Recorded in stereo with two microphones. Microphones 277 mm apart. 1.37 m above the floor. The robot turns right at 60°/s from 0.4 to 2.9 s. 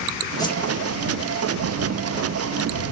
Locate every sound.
0.4 s a whoosh: 10° left (ahead or behind); by 0.6 s 25° left (ahead or behind)